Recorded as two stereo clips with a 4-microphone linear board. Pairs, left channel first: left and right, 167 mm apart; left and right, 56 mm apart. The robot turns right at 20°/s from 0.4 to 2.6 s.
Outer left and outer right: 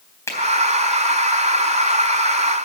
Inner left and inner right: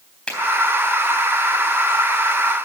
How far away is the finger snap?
About 3 m.